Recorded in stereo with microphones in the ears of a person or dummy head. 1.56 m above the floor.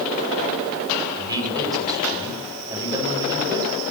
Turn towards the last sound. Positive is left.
turn(degrees=-20)  # may be behind; listen again after turning